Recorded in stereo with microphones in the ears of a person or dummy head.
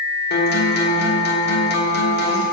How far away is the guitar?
About 3 m.